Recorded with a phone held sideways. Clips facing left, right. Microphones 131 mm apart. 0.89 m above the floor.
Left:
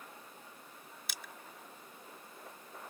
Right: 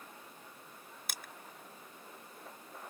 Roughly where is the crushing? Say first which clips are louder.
Right 1 dB; right.